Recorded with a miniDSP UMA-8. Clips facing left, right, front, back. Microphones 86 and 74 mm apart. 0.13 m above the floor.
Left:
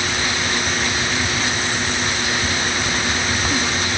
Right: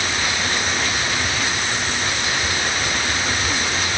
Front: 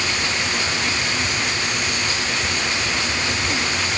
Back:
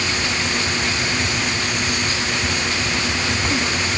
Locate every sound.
Only background noise.